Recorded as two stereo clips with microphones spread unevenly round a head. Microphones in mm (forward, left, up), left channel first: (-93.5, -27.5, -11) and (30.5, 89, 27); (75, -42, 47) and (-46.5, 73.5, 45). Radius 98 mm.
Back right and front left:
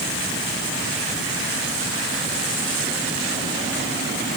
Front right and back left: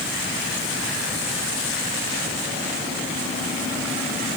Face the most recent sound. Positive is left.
No sound to turn to.